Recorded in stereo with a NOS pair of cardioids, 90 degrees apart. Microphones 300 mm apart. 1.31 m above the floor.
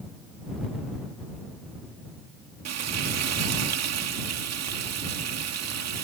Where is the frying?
55° right.